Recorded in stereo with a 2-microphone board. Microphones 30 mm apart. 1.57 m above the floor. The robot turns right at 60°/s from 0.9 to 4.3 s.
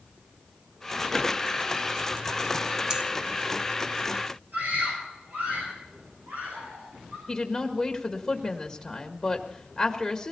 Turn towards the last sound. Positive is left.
turn(degrees=5)  # may be behind; listen again after turning